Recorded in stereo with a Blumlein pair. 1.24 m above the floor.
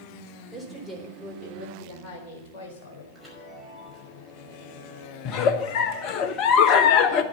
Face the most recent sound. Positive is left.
turn(degrees=40)